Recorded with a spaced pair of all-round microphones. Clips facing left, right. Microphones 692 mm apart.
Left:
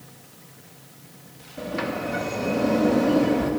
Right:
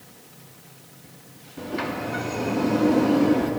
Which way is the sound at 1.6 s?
15° left (ahead or behind).